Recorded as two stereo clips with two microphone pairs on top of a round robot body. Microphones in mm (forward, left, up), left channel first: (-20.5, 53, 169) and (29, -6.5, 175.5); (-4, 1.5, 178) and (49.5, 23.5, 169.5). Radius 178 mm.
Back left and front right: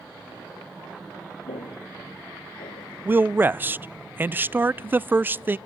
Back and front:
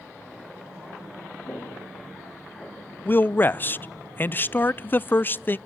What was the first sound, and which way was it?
Footsteps, 145° left.